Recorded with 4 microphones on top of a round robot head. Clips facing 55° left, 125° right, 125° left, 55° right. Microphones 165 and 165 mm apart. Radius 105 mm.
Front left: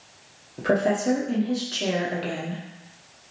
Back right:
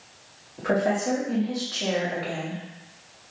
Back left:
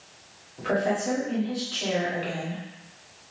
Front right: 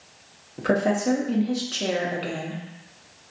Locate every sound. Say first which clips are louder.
0.6 s a woman speaking: front left 2 dB, front right 3 dB; 10° right, 0.6 m